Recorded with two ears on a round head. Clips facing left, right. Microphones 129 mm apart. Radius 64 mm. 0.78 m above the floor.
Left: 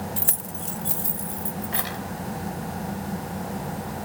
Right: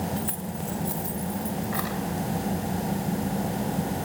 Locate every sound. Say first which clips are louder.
0.2 s keys jangling: right 4 dB; 60° left (ahead or behind), 0.9 m; by 2.0 s 30° left (ahead or behind), 3 m